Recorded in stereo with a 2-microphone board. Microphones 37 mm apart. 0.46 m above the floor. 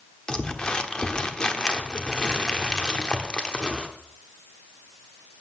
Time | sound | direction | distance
0.3 | crumpling | 25° left (ahead or behind) | 1.1 m